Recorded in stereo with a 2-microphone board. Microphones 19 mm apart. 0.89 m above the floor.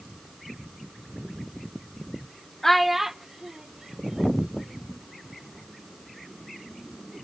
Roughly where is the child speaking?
Left.